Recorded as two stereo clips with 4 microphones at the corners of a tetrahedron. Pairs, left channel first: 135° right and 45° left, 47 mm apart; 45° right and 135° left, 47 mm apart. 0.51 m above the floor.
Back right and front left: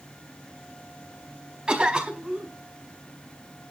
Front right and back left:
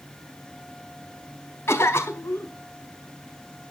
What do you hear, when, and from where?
1.7 s a cough: 25° right, 4 m